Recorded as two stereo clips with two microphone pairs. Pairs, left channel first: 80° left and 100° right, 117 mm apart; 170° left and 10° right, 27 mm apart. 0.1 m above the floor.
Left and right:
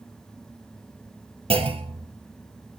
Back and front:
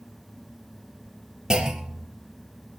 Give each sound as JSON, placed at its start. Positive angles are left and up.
{"t": 1.5, "sound": "a clunk", "azimuth_deg": -75, "distance_m": 2.5}